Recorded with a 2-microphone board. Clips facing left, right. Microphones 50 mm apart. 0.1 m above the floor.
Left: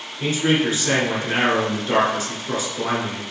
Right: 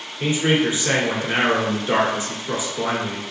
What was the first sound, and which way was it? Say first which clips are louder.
A man speaking: right 1 dB; 20° right (ahead or behind).